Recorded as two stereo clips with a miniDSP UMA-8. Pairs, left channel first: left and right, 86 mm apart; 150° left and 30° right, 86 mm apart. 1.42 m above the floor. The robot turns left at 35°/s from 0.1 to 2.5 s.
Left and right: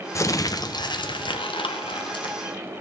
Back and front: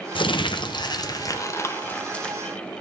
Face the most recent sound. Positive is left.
turn(degrees=65)